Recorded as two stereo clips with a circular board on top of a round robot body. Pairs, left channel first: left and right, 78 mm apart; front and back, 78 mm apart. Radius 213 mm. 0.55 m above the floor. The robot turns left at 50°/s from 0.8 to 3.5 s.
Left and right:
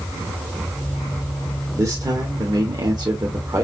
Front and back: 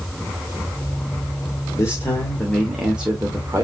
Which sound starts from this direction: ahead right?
A man speaking, at 1.8 s.